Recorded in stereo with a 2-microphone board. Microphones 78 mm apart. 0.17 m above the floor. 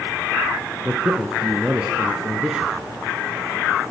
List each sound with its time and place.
0.8 s a man speaking: 10° right (ahead or behind), 1.6 m